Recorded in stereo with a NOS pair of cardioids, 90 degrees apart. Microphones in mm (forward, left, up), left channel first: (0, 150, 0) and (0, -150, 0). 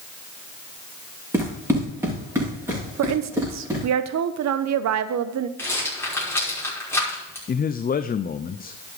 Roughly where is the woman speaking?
Ahead right.